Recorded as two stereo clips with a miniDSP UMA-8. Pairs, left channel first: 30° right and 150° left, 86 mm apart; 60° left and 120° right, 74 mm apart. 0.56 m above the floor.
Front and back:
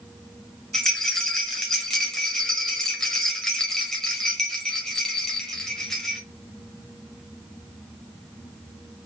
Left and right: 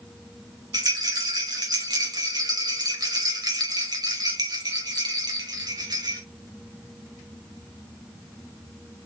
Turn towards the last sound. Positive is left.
turn(degrees=-110)